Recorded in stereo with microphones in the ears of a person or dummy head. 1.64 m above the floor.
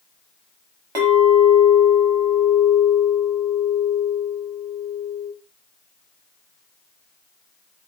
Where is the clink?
20° right (ahead or behind), 0.9 m.